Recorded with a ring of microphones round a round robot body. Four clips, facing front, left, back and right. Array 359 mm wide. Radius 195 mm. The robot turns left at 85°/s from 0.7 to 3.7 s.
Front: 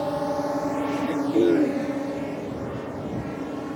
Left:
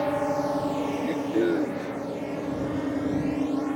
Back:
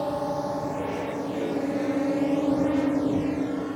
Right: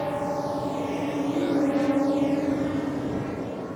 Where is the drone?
70° left; by 3.8 s 100° left.